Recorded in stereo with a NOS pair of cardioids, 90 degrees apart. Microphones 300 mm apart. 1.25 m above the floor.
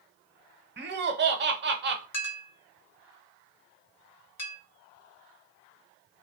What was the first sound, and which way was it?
Laughter, 35° right.